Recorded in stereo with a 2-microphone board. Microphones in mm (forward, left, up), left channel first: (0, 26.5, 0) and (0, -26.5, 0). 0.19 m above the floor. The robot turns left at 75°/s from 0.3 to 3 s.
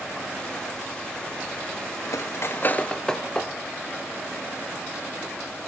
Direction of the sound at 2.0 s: 70° left (ahead or behind).